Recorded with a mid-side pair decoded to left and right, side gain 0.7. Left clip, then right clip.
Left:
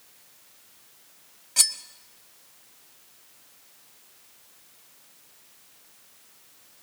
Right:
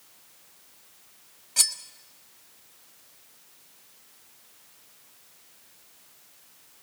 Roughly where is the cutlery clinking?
Ahead.